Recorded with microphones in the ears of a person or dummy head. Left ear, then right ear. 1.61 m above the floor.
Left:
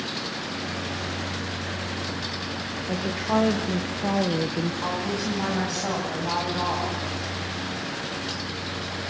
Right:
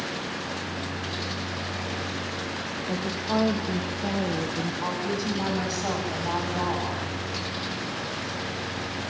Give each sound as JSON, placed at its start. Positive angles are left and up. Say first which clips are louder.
{"t": 2.9, "sound": "a woman speaking", "louder": "left 3 dB", "side_deg": 5, "distance_m": 1.7}
{"t": 4.8, "sound": "a woman speaking", "louder": "even", "side_deg": -5, "distance_m": 9.5}